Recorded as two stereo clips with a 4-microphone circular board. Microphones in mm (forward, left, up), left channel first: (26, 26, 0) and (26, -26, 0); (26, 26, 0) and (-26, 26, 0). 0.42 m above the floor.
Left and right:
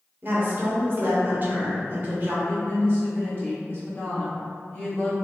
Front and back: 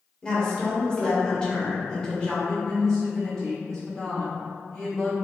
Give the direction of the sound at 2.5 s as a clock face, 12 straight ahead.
9 o'clock.